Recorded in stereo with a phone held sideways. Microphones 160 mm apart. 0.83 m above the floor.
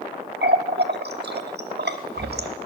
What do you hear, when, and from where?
0.4 s a running tap: 85° right, 1.1 m